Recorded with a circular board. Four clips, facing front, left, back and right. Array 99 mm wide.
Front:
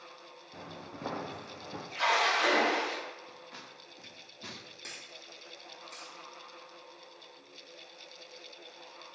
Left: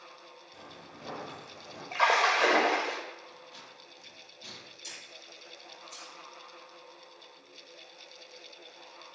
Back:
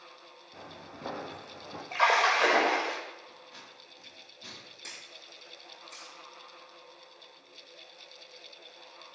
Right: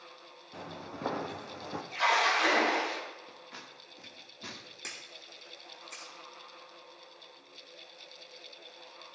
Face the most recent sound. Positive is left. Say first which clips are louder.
# right 1 dB, front 1 dB
turn(degrees=-90)